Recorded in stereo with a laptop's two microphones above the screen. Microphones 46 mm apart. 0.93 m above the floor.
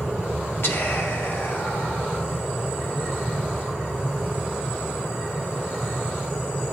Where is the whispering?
60° left (ahead or behind), 1.3 m.